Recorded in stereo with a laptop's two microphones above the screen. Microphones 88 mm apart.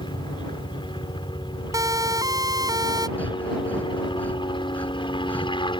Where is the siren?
40° right (ahead or behind); by 3.1 s 50° right (ahead or behind).